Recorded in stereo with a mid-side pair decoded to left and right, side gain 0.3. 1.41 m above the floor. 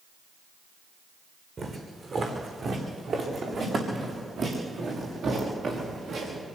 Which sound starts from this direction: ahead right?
Footsteps, at 1.6 s.